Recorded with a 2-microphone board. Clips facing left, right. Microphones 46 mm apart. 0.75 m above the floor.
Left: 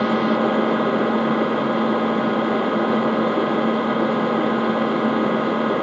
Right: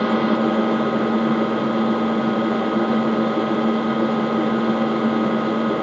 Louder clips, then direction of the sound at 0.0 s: Even; 10° left (ahead or behind).